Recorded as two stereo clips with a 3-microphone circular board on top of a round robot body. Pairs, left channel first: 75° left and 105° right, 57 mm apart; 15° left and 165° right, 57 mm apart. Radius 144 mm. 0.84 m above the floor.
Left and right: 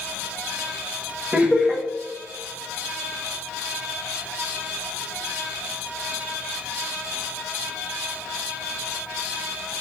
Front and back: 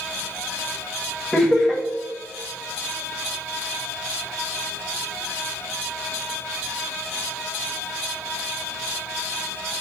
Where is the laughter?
60° right, 1.1 m.